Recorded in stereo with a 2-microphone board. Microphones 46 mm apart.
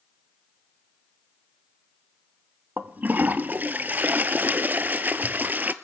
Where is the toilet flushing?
40° right (ahead or behind), 0.6 m.